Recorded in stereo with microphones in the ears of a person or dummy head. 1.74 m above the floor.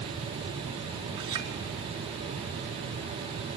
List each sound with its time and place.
1.2 s a clink: 25° right (ahead or behind), 3.5 m